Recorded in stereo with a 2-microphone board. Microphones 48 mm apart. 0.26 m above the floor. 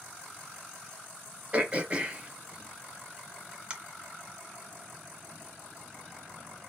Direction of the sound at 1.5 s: 25° right (ahead or behind).